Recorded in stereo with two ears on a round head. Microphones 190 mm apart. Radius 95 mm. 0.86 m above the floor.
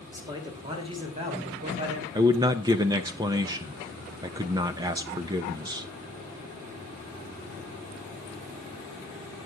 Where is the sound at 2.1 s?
20° right (ahead or behind), 0.6 m.